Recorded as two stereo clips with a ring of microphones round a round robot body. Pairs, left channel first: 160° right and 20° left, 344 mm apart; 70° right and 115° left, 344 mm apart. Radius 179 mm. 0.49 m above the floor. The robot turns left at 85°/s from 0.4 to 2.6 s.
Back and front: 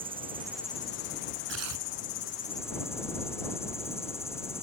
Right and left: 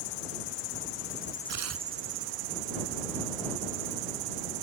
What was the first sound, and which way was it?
An insect, 55° right.